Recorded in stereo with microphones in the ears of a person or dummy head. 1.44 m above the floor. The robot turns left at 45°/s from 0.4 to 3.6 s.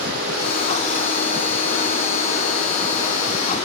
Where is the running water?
85° right, 2 m; by 3.6 s 135° left, 2 m.